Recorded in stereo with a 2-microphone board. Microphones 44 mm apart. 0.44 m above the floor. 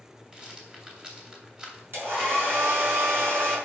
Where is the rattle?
20° right (ahead or behind), 2.5 m.